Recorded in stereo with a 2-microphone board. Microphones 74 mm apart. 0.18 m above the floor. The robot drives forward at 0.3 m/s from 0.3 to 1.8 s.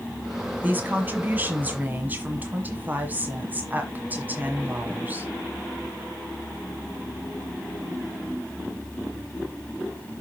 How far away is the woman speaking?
About 1.4 m.